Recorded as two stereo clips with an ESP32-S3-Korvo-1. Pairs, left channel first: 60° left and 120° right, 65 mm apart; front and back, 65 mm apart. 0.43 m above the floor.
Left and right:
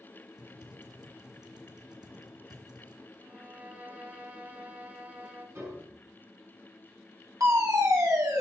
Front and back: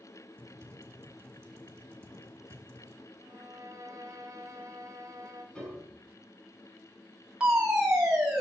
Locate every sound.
0.4 s typing on a keyboard: 125° right, 2.5 m
3.2 s a violin: 170° right, 1.8 m
5.5 s a piano: 75° right, 4.5 m
7.4 s a fire alarm: 105° right, 4 m